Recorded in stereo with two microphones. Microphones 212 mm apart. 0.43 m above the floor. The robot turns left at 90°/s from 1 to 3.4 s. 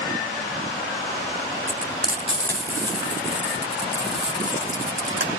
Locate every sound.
1.7 s frying: 70° left (ahead or behind), 3.5 m; by 5.3 s 65° right (ahead or behind), 3.5 m